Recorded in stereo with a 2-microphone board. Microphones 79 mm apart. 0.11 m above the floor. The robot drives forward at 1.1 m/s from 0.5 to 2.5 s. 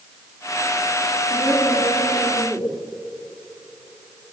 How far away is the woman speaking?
About 7.5 m.